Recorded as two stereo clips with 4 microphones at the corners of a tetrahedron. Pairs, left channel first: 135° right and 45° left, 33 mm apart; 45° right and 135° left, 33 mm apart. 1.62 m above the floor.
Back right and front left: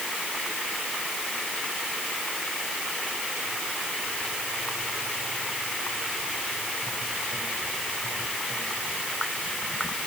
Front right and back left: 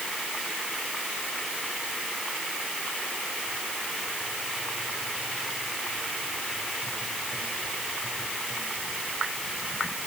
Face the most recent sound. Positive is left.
No sound to turn to.